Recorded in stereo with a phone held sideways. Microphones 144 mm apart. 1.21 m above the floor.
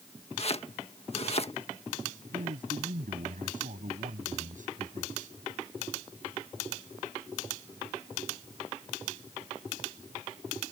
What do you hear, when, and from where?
0.4 s chopping: 45° left (ahead or behind)
2.3 s a man speaking: 65° right (ahead or behind)